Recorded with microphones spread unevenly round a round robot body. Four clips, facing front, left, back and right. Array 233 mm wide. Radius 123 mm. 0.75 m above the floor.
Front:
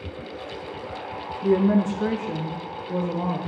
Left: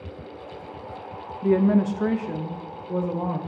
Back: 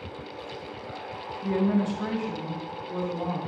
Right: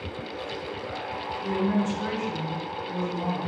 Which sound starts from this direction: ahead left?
A woman speaking, at 1.4 s.